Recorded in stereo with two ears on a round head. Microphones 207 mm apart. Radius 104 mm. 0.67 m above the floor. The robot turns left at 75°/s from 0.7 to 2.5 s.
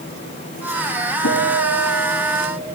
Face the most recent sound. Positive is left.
turn(degrees=-15)